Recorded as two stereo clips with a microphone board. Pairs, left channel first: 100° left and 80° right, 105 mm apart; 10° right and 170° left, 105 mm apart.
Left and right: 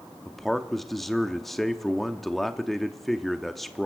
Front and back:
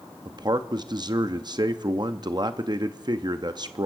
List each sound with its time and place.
0.2 s a man speaking: 175° right, 0.7 m